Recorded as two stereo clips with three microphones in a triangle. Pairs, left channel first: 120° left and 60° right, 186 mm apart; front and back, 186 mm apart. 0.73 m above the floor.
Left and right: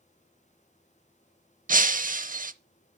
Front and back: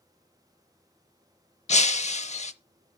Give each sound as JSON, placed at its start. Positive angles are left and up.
{"t": 1.7, "sound": "breaking glass", "azimuth_deg": -40, "distance_m": 0.6}